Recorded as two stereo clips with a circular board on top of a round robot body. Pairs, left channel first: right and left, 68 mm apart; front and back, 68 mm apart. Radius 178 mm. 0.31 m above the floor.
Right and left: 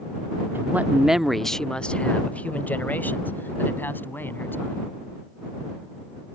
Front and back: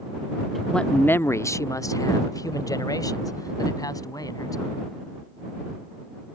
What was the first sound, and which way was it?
A man speaking, 90° left.